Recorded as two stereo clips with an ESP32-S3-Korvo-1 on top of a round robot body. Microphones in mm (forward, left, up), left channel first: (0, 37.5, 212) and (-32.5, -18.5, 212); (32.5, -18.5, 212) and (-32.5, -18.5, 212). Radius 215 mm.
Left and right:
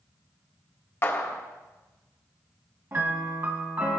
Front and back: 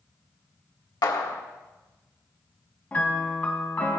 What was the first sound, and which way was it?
A clap, 10° left.